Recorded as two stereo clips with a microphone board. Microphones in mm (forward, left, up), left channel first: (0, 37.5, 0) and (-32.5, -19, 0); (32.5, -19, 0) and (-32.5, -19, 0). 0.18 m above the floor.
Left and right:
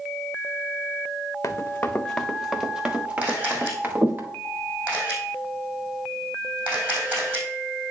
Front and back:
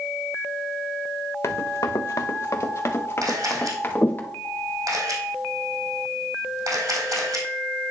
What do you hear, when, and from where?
1.4 s running footsteps: 25° left, 0.7 m; by 4.2 s 60° right, 1.8 m
3.2 s a camera shutter: 175° left, 3 m